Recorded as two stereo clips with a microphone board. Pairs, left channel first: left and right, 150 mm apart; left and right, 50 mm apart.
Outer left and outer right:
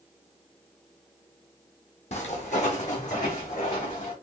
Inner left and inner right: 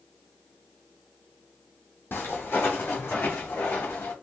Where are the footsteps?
50° left (ahead or behind), 1.3 m; by 4.1 s 55° left (ahead or behind), 3 m.